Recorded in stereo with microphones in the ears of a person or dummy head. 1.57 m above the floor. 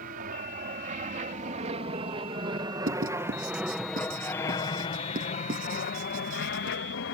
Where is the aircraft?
45° right (ahead or behind); by 7.1 s 65° left (ahead or behind).